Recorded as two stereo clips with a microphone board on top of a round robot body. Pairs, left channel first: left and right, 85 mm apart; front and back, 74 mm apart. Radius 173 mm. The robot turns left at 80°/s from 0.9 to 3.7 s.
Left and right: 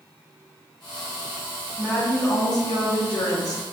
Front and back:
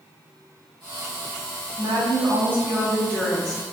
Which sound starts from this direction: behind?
A woman speaking, at 1.8 s.